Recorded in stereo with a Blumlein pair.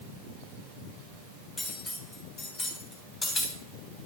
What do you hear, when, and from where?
1.6 s cutlery clinking: 20° left, 4 m